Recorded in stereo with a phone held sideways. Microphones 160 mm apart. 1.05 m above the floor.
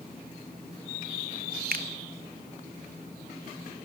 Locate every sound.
1.7 s a finger snap: 65° right (ahead or behind), 1.2 m